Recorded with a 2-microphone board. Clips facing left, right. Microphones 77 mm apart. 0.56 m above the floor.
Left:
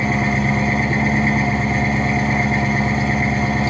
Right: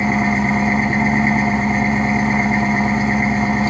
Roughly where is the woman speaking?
No woman speaking in this recording.